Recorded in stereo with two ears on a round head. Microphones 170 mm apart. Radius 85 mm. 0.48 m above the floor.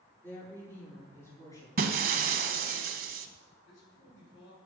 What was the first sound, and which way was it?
A woman speaking, 10° left (ahead or behind).